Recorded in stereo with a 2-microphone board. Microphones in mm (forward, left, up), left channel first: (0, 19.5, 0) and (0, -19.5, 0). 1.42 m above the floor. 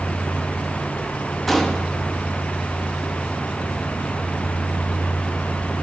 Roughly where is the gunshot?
Centre.